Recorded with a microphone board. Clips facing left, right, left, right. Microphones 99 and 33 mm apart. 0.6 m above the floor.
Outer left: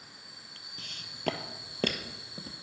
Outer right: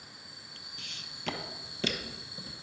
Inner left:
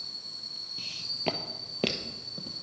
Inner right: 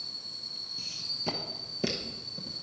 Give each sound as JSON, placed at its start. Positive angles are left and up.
{"t": 0.8, "sound": "footsteps", "side_deg": 40, "distance_m": 1.0}